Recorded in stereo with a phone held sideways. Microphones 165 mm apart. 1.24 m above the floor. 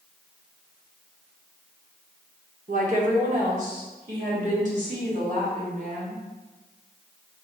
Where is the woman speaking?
55° right (ahead or behind), 1.1 m; by 6.2 s 45° right (ahead or behind), 3 m.